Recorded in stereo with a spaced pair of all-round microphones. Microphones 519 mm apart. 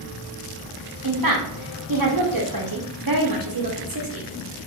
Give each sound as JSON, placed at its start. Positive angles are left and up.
{"t": 1.0, "sound": "a woman speaking", "side_deg": -40, "distance_m": 0.7}